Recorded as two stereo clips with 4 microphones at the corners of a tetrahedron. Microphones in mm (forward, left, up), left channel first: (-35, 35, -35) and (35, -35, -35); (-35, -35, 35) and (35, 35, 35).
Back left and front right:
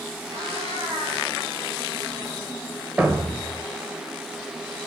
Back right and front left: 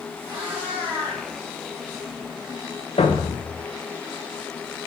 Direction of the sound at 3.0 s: 125° right.